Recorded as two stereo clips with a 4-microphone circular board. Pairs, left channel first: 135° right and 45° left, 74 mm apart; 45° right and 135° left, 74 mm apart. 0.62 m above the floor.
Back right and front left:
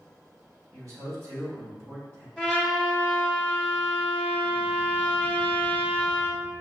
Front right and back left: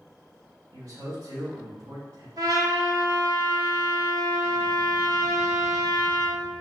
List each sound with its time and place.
0.7 s a man speaking: 90° left, 2.5 m
2.4 s a trumpet: 125° left, 1.7 m